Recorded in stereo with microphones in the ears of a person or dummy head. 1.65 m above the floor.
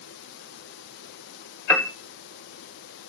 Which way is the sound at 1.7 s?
10° left (ahead or behind).